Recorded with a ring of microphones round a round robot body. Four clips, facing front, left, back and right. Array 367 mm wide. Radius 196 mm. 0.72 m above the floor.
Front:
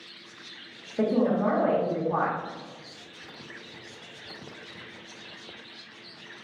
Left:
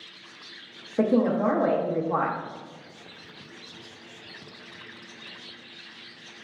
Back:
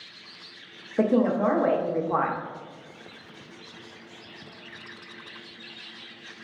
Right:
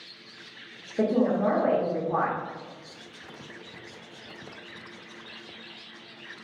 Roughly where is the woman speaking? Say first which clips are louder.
Left 1 dB, back 2 dB; behind left.